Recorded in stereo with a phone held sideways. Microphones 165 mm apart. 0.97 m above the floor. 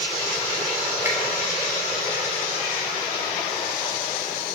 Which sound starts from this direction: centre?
A finger snap, at 1.1 s.